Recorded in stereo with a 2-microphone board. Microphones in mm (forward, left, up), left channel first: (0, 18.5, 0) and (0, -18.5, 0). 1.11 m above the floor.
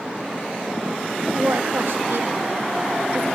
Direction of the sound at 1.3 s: 75° right (ahead or behind).